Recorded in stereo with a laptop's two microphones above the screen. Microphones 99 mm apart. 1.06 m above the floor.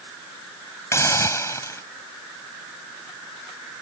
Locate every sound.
0.9 s a hiss: 25° left (ahead or behind)